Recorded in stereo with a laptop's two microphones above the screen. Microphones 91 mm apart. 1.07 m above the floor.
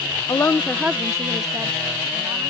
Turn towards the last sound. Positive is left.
turn(degrees=-45)  # may be behind; listen again after turning